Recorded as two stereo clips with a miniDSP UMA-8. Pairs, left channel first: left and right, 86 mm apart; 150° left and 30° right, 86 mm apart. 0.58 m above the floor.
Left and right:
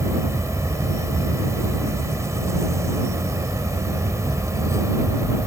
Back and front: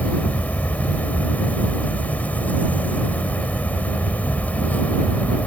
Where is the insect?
140° right.